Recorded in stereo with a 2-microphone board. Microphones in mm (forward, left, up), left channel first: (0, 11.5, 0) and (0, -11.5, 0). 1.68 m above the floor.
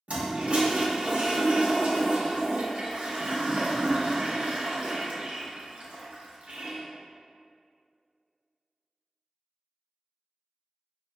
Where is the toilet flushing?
70° right (ahead or behind), 0.5 m.